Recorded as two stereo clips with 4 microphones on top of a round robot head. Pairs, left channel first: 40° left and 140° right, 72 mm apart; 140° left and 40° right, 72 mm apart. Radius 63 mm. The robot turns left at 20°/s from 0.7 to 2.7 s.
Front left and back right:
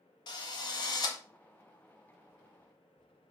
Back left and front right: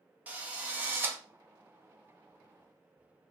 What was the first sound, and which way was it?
A drill, 25° left.